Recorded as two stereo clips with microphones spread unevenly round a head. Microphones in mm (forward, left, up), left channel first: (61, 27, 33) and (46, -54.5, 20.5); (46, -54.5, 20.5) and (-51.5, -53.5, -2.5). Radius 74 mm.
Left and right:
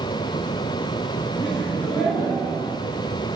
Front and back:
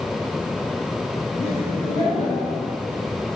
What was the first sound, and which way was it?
Laughter, 70° left.